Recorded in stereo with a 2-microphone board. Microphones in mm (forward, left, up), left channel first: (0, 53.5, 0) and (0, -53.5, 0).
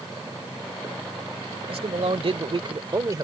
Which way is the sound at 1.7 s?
65° right (ahead or behind).